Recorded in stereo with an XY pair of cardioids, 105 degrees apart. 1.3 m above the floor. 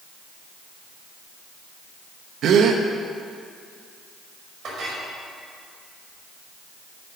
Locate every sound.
2.4 s a gasp: 65° right, 1.1 m
4.6 s a clink: 55° right, 5.5 m